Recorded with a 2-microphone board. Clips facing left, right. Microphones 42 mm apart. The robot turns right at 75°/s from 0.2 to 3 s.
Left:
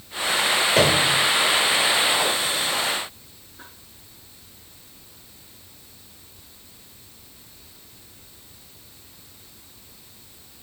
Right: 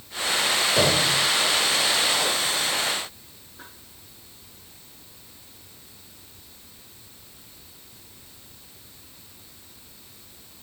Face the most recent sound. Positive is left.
turn(degrees=-135)